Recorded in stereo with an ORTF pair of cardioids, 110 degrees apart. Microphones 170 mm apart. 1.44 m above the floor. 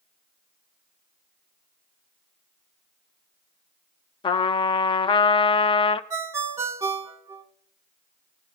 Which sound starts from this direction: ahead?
A ringtone, at 6.1 s.